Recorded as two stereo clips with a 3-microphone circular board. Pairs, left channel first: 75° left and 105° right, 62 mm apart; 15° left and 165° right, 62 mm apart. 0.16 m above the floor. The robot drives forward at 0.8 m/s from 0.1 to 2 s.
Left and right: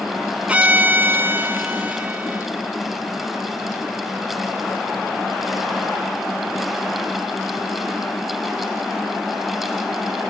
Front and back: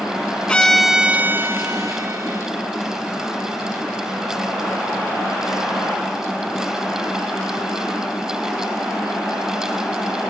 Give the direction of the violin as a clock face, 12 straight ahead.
2 o'clock.